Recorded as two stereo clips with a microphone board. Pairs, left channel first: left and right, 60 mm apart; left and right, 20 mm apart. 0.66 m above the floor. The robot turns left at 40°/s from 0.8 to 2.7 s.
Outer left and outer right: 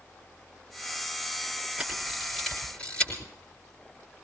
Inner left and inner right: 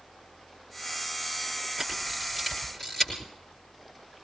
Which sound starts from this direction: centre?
A camera shutter, at 1.8 s.